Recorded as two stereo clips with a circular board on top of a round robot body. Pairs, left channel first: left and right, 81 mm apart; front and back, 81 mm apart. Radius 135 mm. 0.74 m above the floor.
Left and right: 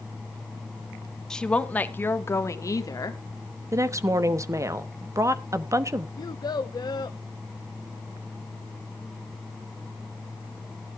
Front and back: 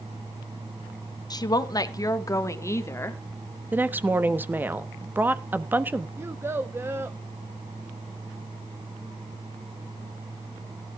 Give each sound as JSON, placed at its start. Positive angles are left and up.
{"t": 1.3, "sound": "a woman speaking", "azimuth_deg": 10, "distance_m": 1.3}
{"t": 3.7, "sound": "a woman speaking", "azimuth_deg": -120, "distance_m": 1.0}
{"t": 6.2, "sound": "a child speaking", "azimuth_deg": 120, "distance_m": 0.8}